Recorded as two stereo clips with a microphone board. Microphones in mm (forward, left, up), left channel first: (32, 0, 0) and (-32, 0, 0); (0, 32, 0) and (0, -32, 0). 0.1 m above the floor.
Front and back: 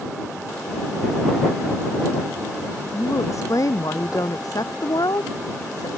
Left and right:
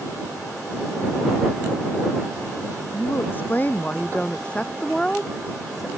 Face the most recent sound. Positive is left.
turn(degrees=0)